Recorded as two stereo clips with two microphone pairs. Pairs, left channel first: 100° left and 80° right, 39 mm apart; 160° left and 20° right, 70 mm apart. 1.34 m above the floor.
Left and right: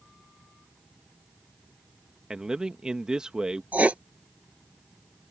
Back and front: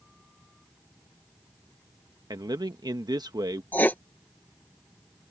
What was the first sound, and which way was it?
A man speaking, 10° right.